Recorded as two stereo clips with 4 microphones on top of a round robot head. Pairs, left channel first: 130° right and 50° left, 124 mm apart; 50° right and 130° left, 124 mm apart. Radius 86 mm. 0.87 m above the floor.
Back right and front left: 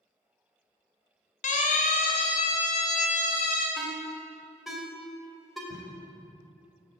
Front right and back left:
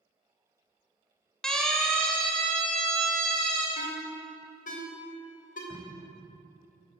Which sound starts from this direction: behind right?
A siren, at 1.4 s.